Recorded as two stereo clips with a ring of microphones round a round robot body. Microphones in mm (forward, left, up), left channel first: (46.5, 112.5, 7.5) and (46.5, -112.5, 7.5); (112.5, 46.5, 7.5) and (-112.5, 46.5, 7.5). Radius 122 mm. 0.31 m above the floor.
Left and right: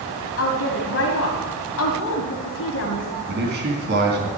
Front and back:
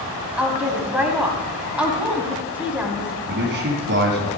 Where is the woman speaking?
95° left, 2.5 m.